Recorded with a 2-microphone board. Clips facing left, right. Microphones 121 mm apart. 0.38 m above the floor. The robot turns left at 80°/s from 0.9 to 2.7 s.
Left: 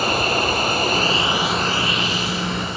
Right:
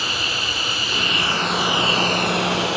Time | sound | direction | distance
0.0 | running water | 50° left | ?